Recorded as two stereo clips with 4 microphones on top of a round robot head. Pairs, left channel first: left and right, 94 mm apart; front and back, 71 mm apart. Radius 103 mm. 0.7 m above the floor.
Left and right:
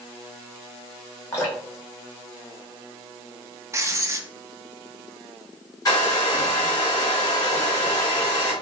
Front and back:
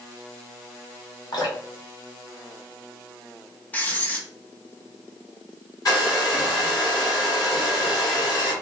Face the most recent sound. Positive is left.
turn(degrees=40)